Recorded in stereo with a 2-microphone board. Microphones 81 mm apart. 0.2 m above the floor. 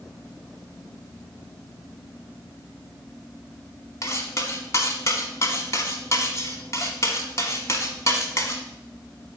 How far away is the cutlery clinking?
About 1.0 m.